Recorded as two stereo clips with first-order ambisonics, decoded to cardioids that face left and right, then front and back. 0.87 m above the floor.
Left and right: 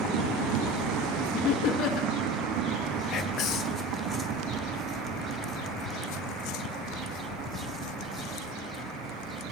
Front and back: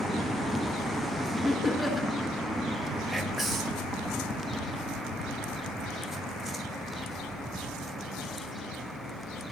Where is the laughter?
90° left, 0.9 m.